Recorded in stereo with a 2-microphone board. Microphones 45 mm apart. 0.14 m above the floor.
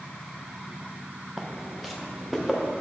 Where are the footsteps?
5° right (ahead or behind), 1.0 m; by 2.7 s centre (ahead or behind), 1.8 m.